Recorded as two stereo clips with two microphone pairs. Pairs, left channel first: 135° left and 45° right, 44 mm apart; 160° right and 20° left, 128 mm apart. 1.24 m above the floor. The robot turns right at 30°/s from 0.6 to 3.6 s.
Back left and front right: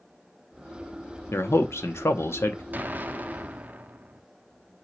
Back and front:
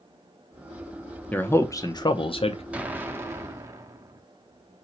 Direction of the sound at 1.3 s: 120° left.